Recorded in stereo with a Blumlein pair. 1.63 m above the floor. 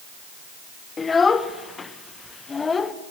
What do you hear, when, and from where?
1.0 s a child speaking: 15° left, 1.2 m